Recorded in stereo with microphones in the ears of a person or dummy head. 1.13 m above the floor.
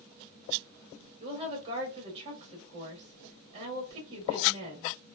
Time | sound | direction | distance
1.2 | a woman speaking | 35° right (ahead or behind) | 1.4 m